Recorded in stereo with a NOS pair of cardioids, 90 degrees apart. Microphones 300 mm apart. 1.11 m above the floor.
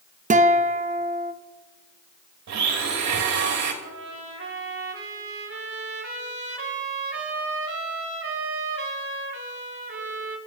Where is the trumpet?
45° right, 4 m.